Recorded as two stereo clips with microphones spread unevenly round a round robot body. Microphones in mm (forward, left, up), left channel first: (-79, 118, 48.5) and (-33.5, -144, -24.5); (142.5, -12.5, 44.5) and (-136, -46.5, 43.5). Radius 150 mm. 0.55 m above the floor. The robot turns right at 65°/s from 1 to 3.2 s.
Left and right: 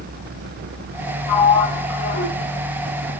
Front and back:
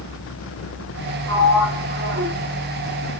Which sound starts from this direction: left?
A sliding door, at 1.3 s.